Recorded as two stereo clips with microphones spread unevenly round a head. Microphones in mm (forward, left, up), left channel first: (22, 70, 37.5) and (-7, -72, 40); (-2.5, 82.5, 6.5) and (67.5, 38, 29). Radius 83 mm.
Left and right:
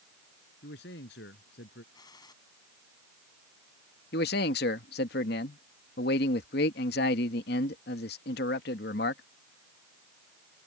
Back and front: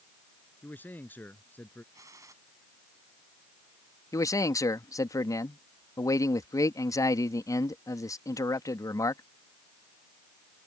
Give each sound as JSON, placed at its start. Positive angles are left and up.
{"t": 0.6, "sound": "a man speaking", "azimuth_deg": 80}
{"t": 1.9, "sound": "a gunshot", "azimuth_deg": 15}
{"t": 4.1, "sound": "a man speaking", "azimuth_deg": 95}